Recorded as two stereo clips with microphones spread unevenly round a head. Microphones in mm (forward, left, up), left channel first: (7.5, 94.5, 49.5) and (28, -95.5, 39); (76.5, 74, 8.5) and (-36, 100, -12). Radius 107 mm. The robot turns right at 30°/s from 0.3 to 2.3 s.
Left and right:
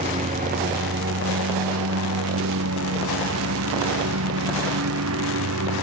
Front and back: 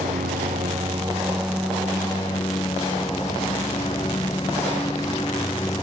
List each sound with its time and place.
0.0 s a lawn mower: 140° right; by 5.8 s 85° right